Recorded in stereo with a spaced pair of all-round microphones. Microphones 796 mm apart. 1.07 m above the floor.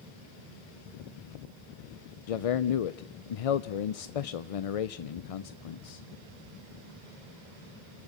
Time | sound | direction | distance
2.3 | a man speaking | 50° left (ahead or behind) | 0.5 m